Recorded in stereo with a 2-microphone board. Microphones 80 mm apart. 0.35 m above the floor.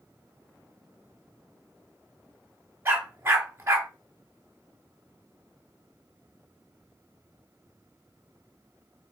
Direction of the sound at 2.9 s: 30° right (ahead or behind).